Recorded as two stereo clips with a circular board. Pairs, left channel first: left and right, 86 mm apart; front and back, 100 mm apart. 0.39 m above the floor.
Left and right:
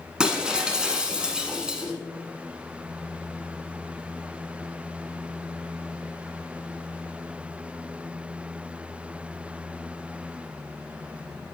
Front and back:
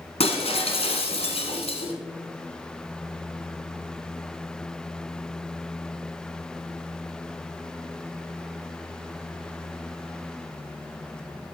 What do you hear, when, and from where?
0.2 s breaking glass: 10° right, 1.0 m